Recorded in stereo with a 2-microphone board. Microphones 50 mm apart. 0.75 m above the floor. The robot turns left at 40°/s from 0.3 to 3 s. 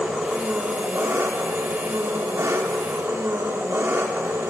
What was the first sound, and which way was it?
An engine running, 20° right.